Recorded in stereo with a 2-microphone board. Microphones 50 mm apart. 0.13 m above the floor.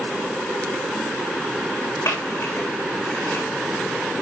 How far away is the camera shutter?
About 7.5 m.